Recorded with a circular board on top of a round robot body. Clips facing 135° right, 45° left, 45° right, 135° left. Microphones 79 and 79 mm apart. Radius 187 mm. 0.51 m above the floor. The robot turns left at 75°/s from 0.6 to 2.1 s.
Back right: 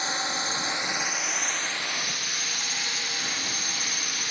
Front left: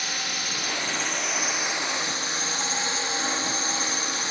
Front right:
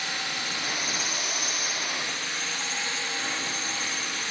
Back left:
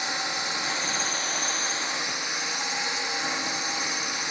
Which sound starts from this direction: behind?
A drone, at 0.0 s.